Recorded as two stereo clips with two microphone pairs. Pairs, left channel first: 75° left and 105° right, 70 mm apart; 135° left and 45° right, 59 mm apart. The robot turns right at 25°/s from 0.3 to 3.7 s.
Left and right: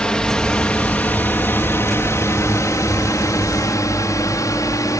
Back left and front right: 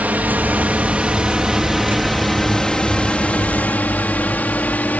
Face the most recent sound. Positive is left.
turn(degrees=80)